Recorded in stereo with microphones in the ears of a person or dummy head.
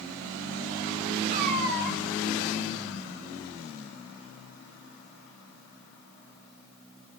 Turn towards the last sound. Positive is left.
turn(degrees=-50)  # may be behind; listen again after turning